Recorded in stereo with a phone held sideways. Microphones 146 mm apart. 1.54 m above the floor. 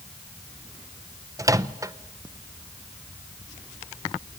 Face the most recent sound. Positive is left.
turn(degrees=-25)  # may be behind; listen again after turning